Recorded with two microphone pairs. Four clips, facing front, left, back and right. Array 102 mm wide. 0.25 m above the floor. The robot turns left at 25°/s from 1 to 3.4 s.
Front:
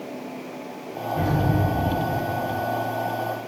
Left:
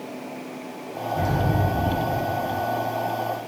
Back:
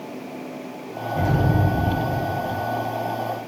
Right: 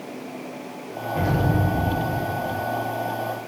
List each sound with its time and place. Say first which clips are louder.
1.1 s an explosion: right 1 dB, back 2 dB; 95° right, 2 m; by 2.6 s 135° right, 2 m